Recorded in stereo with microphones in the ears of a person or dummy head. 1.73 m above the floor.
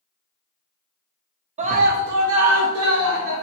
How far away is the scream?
About 0.5 m.